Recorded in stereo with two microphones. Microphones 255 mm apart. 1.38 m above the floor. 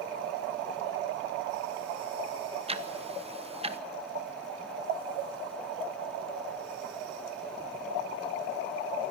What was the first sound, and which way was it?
Ticking, 25° right (ahead or behind).